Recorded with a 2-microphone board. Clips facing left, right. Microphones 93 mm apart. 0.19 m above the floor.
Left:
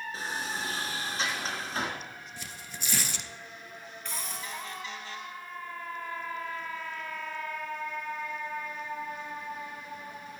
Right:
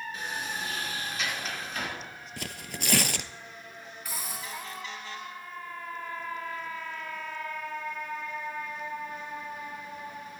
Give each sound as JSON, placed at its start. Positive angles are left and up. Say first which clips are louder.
{"t": 0.1, "sound": "a sliding door", "louder": "left 2 dB", "side_deg": 35, "distance_m": 2.5}
{"t": 2.4, "sound": "tearing paper", "louder": "right 5 dB", "side_deg": -80, "distance_m": 0.6}
{"t": 4.0, "sound": "a hiss", "louder": "even", "side_deg": -5, "distance_m": 1.4}